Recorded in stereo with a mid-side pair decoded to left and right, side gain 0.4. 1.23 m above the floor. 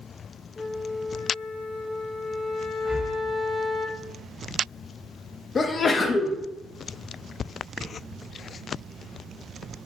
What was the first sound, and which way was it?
A flute, 45° left.